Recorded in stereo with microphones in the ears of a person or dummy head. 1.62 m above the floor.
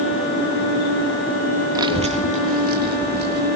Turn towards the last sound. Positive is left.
turn(degrees=-50)  # may be behind; listen again after turning